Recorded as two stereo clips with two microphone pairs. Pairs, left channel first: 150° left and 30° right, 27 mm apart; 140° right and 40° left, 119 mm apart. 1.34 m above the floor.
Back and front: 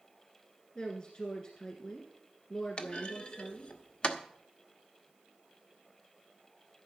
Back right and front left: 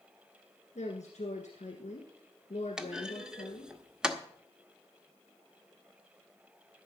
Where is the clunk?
115° left, 1.1 m.